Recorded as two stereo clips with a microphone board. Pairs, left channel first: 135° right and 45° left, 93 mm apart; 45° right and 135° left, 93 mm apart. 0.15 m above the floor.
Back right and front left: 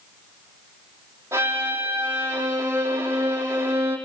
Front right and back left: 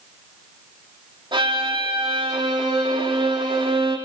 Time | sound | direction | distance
1.3 | a violin | 105° left | 5.5 m